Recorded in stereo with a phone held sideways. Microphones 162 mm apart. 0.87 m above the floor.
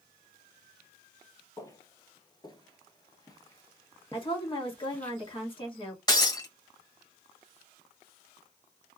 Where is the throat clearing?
No throat clearing in this recording.